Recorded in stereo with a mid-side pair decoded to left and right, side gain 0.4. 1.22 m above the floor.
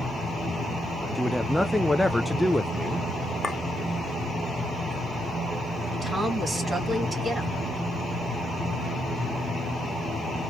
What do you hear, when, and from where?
1.1 s a man speaking: straight ahead, 0.6 m
3.4 s a clink: 35° left, 0.6 m
6.0 s a woman speaking: 35° right, 2.5 m